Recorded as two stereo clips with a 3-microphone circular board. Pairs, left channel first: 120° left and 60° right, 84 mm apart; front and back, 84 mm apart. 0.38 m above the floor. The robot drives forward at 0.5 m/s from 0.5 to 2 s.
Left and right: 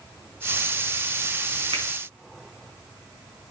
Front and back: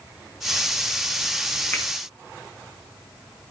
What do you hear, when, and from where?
1.7 s a finger snap: 70° right, 3.5 m